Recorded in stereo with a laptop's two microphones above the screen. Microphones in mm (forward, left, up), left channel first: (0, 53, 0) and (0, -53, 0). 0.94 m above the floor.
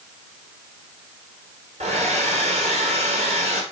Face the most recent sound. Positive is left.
turn(degrees=-70)  # may be behind; listen again after turning